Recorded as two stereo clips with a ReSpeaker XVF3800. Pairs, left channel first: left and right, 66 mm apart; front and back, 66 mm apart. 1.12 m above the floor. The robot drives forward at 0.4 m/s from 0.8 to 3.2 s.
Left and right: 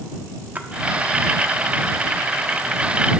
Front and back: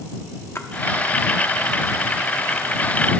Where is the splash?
35° right, 0.8 m.